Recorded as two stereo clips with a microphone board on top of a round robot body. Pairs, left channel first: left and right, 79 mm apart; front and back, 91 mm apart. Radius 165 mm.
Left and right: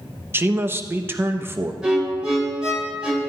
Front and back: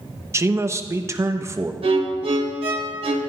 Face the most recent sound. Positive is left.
turn(degrees=-170)